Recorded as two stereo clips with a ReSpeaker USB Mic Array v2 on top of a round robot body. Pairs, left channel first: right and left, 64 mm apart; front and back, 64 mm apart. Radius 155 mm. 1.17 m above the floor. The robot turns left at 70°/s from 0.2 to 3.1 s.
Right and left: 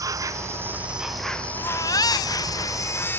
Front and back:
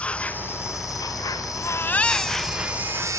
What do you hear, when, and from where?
0.0 s an insect: 70° left; by 3.2 s 135° right
1.6 s a baby crying: 45° right; by 3.2 s 150° right